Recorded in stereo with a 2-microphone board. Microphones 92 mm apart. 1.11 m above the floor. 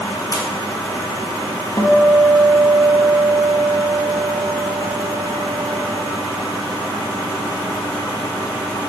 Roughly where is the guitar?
Left.